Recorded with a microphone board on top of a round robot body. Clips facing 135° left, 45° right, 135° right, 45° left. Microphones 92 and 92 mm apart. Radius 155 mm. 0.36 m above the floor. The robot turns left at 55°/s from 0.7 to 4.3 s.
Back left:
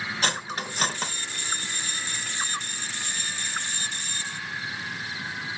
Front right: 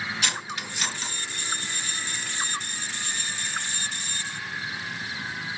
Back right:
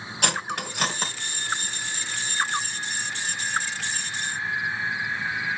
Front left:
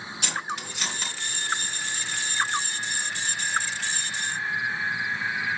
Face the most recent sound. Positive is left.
turn(degrees=-10)